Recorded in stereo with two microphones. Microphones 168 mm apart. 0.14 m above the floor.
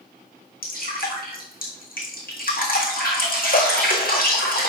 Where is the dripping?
60° left (ahead or behind), 3.5 m.